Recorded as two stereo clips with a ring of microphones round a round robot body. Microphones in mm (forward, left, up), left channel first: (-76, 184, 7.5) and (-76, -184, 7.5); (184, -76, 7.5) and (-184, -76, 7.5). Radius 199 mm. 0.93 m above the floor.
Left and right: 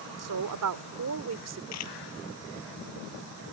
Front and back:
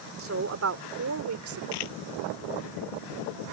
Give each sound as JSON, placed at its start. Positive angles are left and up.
{"t": 0.2, "sound": "a woman speaking", "azimuth_deg": -125}
{"t": 1.7, "sound": "a camera shutter", "azimuth_deg": 35}